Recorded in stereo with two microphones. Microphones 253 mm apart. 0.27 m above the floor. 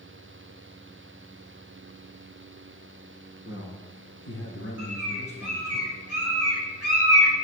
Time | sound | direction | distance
3.5 | a man speaking | 55° left (ahead or behind) | 3 m
4.8 | a bird | 70° left (ahead or behind) | 5.5 m